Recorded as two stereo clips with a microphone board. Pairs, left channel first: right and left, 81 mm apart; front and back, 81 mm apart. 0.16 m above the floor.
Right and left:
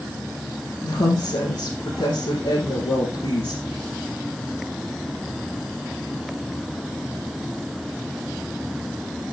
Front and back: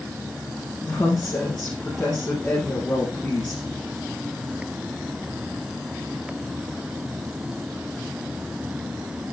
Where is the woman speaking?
75° right, 4 m.